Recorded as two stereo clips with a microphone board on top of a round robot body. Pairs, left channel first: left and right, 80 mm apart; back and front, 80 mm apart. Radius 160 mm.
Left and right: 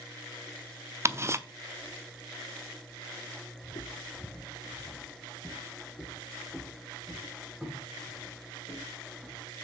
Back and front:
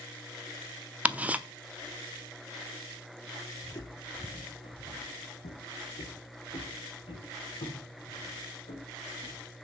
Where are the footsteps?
125° left, 0.5 m; by 9.5 s 175° right, 4 m.